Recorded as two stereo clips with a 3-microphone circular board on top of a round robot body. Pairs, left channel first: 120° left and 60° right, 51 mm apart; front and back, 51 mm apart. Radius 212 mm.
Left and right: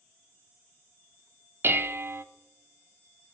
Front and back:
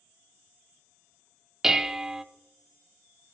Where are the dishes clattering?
100° right, 0.5 m.